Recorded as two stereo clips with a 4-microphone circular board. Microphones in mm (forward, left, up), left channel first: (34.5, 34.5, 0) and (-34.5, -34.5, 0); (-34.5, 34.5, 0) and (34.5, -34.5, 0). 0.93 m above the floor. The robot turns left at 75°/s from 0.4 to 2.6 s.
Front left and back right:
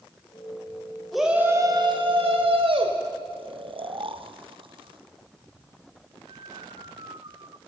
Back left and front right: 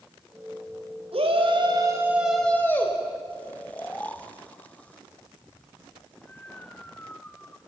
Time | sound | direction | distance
1.1 | a shout | 45° right | 5 m
3.3 | snoring | 150° right | 1.0 m